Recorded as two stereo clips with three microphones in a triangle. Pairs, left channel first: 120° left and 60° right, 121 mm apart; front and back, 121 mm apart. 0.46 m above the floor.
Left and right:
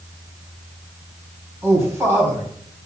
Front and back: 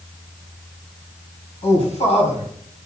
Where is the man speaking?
10° left, 3 m.